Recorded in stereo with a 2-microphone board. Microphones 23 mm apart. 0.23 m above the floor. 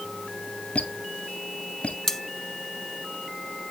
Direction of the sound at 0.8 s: 80° left.